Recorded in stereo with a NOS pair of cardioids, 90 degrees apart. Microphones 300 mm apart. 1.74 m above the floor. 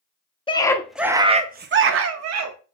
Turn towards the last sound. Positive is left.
turn(degrees=-65)